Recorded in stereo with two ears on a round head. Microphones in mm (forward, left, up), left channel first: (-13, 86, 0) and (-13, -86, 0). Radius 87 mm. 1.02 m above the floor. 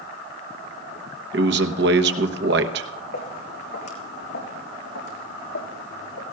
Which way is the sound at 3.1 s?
60° left (ahead or behind).